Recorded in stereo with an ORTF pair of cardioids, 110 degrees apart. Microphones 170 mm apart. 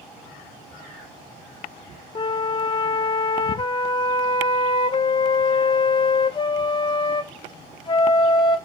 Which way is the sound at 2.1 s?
30° left.